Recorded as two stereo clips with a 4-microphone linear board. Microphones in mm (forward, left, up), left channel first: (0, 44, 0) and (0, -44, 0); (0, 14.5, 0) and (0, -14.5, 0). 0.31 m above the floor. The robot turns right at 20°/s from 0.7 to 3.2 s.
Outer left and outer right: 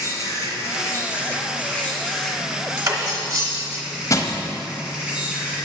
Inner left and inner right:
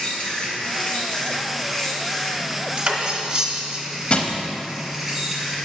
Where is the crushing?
40° left (ahead or behind), 0.8 m.